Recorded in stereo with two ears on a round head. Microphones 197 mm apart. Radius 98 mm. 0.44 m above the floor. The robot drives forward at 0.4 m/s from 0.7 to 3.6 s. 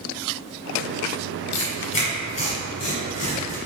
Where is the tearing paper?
30° left (ahead or behind), 1.8 m; by 3.6 s 35° left (ahead or behind), 1.5 m.